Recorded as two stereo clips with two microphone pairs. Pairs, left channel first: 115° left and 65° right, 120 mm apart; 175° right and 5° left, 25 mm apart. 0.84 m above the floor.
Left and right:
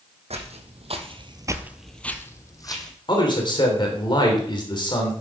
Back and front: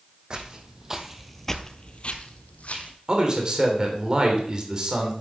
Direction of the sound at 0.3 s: 45° right.